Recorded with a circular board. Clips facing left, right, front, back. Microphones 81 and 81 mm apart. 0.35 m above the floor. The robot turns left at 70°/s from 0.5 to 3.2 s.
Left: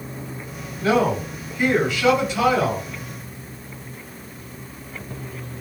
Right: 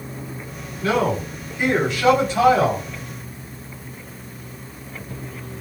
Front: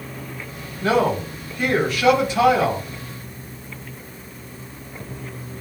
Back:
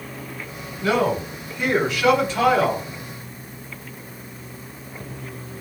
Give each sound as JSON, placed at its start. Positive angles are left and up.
{"t": 0.8, "sound": "a man speaking", "azimuth_deg": 35, "distance_m": 1.9}